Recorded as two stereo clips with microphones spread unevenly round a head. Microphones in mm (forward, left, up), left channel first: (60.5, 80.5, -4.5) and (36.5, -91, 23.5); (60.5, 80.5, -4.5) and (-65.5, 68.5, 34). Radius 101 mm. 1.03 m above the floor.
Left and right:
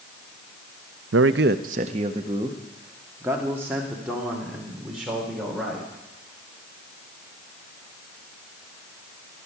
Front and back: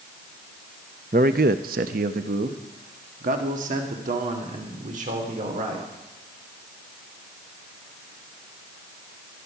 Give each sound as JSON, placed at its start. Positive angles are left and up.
{"t": 1.1, "sound": "a man speaking", "azimuth_deg": -120, "distance_m": 0.5}